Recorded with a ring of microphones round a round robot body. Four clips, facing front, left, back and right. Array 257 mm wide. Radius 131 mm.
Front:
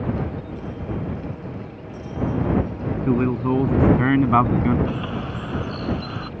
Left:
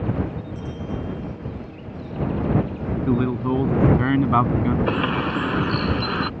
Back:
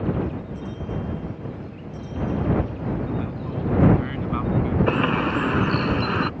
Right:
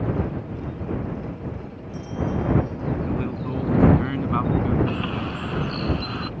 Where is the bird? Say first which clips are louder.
Left 5 dB, back 6 dB; 145° left.